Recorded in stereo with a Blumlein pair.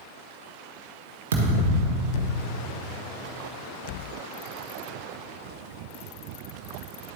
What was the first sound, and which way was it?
A thud, 60° right.